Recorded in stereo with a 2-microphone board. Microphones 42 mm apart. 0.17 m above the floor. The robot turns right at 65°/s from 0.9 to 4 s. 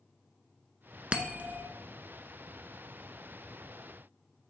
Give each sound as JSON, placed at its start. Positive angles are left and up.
{"t": 1.1, "sound": "a bell", "azimuth_deg": -150, "distance_m": 0.8}